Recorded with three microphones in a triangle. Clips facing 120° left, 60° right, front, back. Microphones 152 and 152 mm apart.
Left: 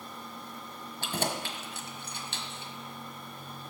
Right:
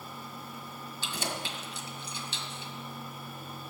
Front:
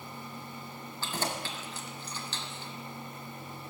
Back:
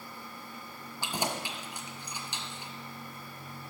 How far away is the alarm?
No alarm in this recording.